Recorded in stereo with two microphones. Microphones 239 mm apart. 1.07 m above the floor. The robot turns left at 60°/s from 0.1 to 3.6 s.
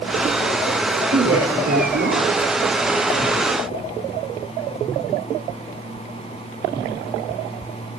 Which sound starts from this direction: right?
A woman speaking, at 1.1 s.